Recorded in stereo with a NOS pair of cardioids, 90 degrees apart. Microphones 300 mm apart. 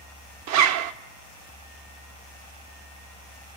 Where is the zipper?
65° right, 0.5 m.